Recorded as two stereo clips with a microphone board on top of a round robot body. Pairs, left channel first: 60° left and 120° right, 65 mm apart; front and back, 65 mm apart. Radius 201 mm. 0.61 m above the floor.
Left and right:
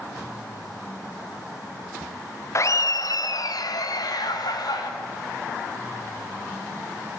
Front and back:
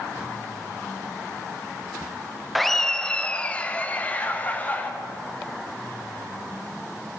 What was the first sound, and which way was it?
Laughter, 90° left.